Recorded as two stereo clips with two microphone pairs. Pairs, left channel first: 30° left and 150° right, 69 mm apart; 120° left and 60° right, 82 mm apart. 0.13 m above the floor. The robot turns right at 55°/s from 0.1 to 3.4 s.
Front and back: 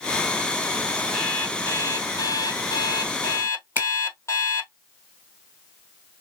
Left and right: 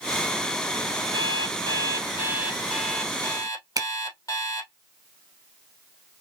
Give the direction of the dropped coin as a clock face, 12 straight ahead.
No dropped coin in this recording.